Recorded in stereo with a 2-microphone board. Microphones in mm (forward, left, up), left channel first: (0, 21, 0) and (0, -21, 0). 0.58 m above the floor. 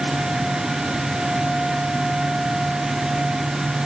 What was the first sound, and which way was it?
Only background noise.